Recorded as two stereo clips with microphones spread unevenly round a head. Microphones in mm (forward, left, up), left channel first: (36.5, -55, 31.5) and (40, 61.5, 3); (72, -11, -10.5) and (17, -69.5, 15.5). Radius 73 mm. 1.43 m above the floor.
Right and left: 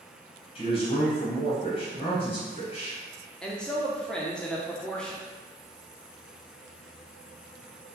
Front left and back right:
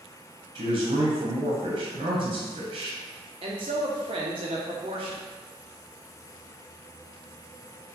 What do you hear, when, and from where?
0.6 s a man speaking: 145° right, 0.8 m
3.4 s a man speaking: 175° left, 0.6 m